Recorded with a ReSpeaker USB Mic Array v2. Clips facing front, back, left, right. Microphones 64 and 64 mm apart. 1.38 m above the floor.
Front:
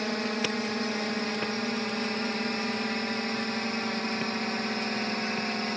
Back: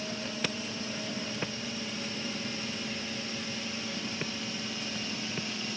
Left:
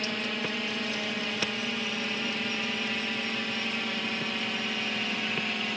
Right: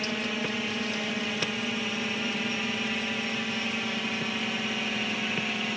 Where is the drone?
5° right.